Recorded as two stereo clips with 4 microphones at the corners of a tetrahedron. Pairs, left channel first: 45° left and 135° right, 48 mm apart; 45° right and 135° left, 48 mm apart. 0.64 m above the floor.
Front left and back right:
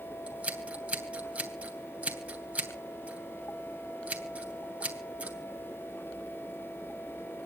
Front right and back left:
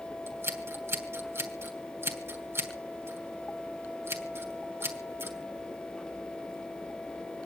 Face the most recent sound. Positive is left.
turn(degrees=165)